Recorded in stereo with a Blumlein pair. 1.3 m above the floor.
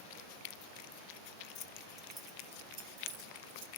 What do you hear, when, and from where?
1.6 s keys jangling: 35° left, 1.1 m; by 3.7 s 40° right, 2.5 m